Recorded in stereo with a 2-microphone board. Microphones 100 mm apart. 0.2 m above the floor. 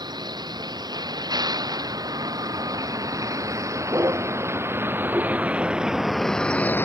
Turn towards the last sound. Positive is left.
turn(degrees=20)  # may be behind; listen again after turning